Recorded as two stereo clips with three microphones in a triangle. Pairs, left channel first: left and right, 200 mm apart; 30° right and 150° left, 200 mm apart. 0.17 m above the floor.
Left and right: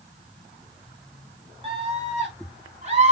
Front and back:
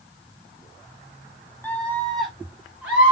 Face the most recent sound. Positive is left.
turn(degrees=-130)